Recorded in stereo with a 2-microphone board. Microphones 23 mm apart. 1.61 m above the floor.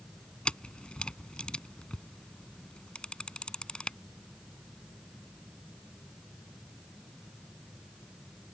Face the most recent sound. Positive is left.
turn(degrees=50)  # may be behind; listen again after turning